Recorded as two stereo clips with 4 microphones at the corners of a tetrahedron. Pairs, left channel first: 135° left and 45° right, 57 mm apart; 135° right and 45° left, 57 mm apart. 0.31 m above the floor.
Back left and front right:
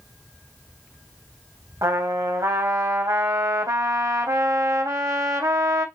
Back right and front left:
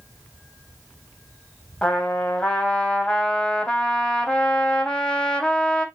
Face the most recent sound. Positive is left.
turn(degrees=-60)